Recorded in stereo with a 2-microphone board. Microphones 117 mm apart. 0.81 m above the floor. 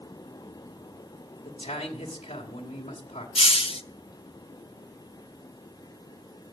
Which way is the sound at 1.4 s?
70° left (ahead or behind).